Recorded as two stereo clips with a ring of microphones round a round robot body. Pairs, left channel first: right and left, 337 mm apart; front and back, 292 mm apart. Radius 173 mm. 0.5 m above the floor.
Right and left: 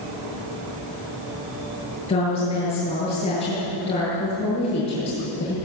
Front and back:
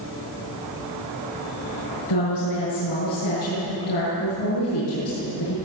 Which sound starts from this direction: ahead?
A woman speaking, at 2.1 s.